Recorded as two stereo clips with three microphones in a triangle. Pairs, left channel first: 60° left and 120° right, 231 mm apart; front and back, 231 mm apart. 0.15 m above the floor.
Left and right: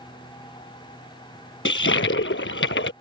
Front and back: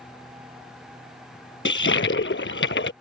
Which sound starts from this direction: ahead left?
A toilet flushing, at 1.6 s.